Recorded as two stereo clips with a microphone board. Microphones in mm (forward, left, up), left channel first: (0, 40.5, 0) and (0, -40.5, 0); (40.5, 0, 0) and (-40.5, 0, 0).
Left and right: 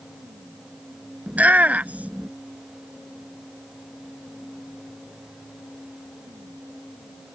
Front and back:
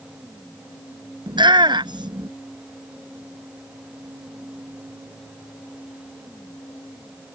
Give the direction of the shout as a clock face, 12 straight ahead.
5 o'clock.